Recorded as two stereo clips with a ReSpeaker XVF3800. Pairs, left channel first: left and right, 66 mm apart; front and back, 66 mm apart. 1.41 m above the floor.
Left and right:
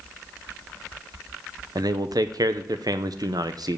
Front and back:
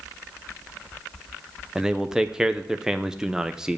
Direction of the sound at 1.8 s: 100° right.